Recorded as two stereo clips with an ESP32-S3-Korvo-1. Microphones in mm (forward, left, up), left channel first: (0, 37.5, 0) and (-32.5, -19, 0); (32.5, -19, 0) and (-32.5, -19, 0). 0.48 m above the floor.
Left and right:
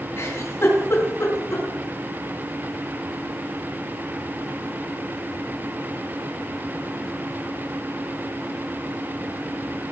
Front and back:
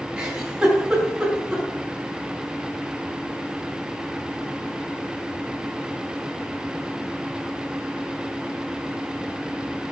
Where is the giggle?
100° left, 5 m.